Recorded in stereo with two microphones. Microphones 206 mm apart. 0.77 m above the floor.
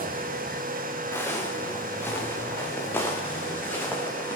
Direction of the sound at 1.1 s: 10° left (ahead or behind).